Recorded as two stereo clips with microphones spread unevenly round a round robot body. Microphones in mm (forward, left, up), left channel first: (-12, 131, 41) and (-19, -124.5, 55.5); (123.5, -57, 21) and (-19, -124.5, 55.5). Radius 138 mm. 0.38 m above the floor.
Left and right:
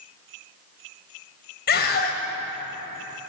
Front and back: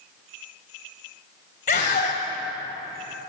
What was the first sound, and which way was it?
A scream, 45° left.